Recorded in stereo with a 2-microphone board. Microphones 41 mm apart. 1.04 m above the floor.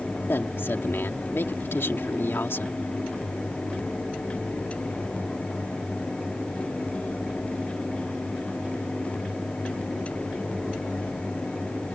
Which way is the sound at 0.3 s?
70° left (ahead or behind).